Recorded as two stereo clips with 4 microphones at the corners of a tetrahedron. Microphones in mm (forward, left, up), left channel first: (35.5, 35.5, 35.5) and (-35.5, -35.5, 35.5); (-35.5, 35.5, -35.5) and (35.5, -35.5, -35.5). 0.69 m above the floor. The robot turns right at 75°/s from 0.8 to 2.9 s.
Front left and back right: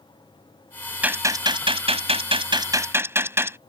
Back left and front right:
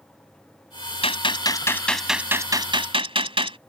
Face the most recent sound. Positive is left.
turn(degrees=-70)